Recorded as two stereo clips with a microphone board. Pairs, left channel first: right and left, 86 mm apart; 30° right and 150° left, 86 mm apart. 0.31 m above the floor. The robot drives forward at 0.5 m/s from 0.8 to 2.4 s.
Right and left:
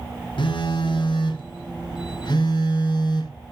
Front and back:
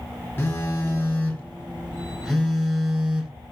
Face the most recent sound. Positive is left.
turn(degrees=-115)